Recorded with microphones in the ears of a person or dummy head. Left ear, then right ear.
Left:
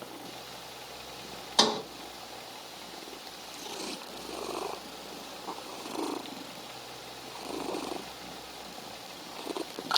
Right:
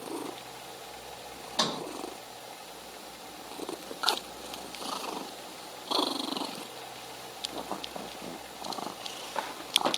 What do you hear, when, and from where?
1.6 s a sliding door: 40° left (ahead or behind), 1.6 m